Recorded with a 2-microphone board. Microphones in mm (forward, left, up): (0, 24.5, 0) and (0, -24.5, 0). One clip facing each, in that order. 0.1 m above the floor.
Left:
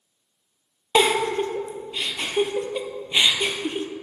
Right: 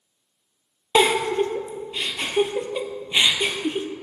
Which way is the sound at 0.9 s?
5° right (ahead or behind).